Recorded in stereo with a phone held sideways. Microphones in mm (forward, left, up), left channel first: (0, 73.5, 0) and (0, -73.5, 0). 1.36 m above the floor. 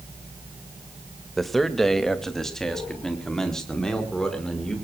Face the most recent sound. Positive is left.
turn(degrees=5)  # may be behind; listen again after turning